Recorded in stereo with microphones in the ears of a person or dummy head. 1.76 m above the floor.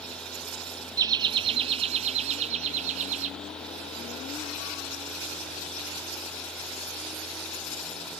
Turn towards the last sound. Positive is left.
turn(degrees=-45)  # may be behind; listen again after turning